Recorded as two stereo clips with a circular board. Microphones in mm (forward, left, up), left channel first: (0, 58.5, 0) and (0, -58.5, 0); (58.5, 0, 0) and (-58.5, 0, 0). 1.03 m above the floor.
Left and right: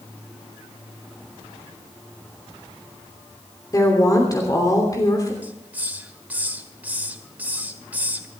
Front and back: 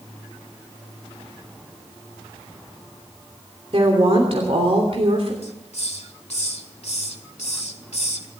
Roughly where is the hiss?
Ahead.